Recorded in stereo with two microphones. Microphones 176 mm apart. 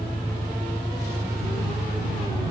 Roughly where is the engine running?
Centre.